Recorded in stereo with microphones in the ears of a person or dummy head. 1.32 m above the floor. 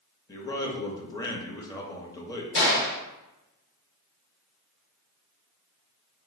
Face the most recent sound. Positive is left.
turn(degrees=55)  # may be behind; listen again after turning